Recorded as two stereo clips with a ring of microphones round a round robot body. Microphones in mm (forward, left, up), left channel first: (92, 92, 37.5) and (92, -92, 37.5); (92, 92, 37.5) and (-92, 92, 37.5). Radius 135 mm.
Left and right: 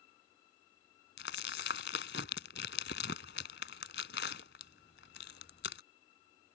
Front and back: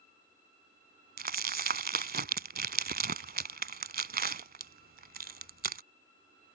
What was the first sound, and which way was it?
Crumpling, 140° left.